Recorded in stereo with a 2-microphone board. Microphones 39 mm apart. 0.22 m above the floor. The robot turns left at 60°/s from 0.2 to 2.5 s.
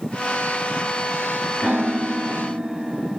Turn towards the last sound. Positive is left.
turn(degrees=-20)  # may be behind; listen again after turning